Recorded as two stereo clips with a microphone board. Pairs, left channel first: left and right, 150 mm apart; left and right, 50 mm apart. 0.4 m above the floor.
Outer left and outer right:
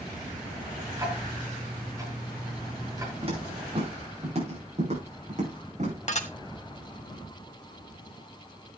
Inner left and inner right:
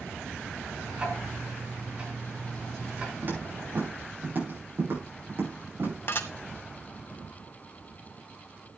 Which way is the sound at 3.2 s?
40° right (ahead or behind).